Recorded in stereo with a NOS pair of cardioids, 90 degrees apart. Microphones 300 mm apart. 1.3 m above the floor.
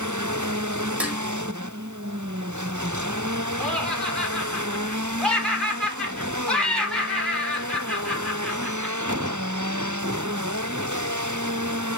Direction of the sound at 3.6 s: 5° left.